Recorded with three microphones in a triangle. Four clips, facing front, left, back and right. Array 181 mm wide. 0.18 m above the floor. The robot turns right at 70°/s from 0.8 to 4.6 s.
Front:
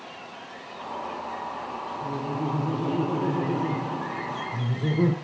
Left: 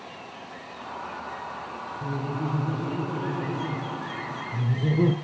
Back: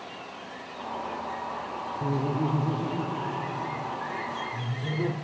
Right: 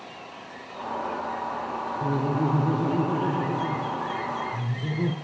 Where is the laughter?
135° right, 1.9 m; by 5.1 s 45° left, 1.9 m.